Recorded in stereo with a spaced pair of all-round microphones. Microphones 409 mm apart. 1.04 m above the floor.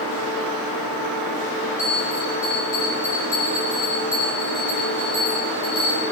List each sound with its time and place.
1.8 s a bell: 40° right (ahead or behind), 4.5 m